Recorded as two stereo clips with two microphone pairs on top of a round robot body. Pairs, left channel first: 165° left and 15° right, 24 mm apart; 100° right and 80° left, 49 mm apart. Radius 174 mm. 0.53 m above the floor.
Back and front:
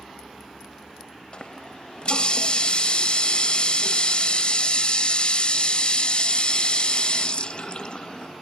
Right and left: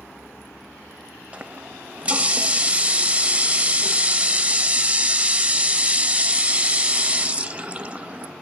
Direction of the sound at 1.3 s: 135° left.